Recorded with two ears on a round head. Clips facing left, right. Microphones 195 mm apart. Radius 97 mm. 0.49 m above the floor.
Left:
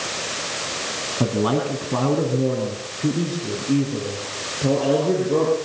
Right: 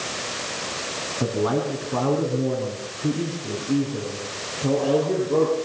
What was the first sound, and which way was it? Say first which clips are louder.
A man speaking: left 2 dB; 55° left (ahead or behind).